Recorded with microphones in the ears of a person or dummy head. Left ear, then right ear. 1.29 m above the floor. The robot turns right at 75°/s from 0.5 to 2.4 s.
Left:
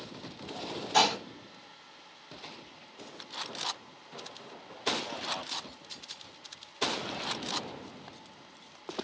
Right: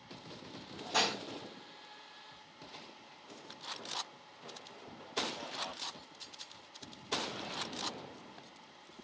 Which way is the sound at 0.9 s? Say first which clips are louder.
Left 7 dB; 15° right (ahead or behind).